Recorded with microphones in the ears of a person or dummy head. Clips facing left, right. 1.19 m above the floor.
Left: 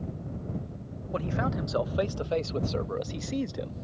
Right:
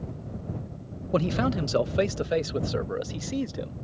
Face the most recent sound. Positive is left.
turn(degrees=0)  # may be behind; listen again after turning